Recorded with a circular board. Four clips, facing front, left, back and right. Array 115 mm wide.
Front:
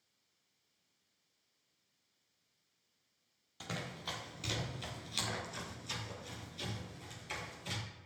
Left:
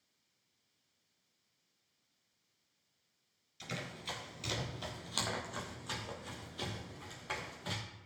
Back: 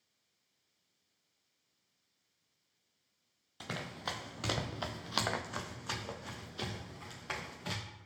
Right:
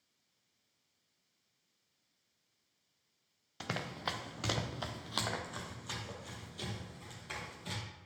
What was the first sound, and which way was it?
Running footsteps, 100° right.